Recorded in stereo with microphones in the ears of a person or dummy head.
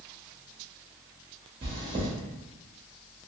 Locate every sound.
1.6 s chewing: 25° right (ahead or behind), 0.8 m